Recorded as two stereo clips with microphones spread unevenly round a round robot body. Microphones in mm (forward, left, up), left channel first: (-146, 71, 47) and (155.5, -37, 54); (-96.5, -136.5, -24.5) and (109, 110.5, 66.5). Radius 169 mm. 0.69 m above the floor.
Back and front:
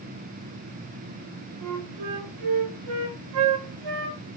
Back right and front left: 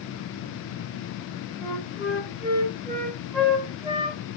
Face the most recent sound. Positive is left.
turn(degrees=-25)